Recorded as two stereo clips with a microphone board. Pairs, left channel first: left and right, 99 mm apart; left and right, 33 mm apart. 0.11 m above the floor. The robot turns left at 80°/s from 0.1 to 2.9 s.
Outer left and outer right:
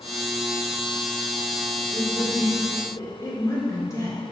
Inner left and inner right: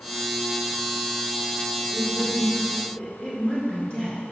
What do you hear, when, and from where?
1.9 s a woman speaking: 175° right, 1.8 m; by 4.2 s 105° left, 1.8 m